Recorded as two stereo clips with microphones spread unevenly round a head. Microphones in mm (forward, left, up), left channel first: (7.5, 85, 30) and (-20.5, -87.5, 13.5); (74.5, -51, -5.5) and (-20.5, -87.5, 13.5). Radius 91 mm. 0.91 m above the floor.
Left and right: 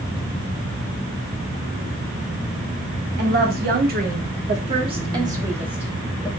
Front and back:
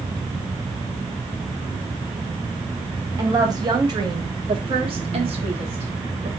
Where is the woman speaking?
100° right, 1.9 m; by 6.3 s 165° left, 1.4 m.